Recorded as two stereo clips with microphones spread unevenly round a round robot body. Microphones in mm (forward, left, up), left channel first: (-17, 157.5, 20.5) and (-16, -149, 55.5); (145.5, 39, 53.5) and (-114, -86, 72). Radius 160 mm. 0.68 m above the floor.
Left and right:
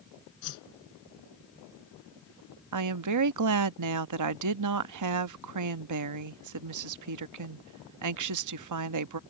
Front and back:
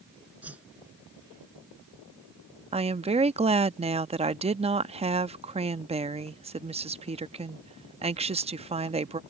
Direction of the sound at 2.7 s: 85° right.